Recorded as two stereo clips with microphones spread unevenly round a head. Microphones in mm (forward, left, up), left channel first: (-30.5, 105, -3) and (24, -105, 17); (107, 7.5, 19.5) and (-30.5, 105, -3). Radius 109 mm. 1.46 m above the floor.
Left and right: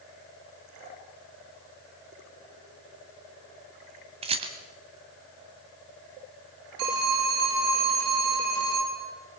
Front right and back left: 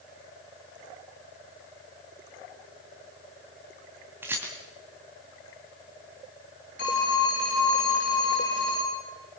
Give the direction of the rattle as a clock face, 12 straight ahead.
4 o'clock.